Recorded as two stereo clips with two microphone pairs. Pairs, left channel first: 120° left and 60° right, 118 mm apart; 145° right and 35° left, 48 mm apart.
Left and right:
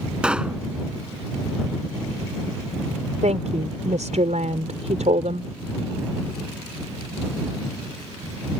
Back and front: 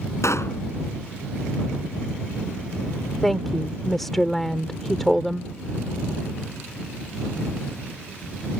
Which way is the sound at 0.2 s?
140° right.